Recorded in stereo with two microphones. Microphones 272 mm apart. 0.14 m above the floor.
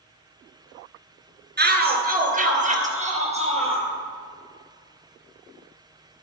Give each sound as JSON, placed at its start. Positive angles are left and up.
{"t": 1.6, "sound": "a shout", "side_deg": -35, "distance_m": 1.7}